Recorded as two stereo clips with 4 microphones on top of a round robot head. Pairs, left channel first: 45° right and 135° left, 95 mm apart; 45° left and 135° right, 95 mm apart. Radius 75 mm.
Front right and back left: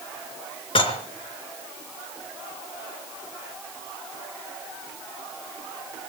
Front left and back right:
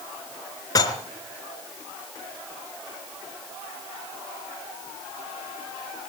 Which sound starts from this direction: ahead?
Dishes clattering, at 0.8 s.